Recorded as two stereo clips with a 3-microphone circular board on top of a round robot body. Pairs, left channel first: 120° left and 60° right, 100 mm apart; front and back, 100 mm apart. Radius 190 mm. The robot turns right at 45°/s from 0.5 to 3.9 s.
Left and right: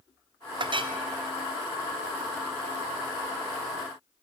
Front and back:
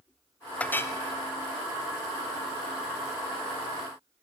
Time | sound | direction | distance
0.6 | a clink | 75° right | 0.6 m